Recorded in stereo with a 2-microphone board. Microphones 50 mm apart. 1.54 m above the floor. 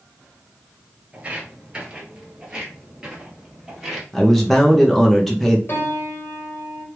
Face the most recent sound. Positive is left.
turn(degrees=45)  # may be behind; listen again after turning